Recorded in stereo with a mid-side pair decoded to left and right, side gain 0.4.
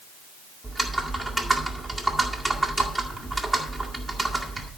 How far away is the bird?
I don't hear a bird.